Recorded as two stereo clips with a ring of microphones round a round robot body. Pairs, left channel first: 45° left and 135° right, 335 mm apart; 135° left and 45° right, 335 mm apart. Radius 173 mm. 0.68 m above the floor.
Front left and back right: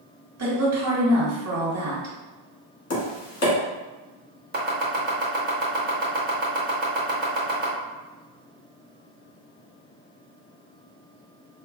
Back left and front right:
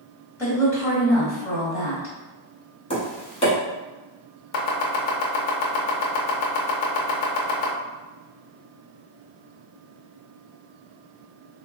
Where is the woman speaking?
145° right, 1.4 m.